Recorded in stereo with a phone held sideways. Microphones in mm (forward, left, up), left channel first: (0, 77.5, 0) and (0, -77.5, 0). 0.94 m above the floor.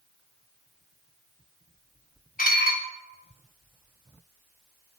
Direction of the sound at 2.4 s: 65° left (ahead or behind).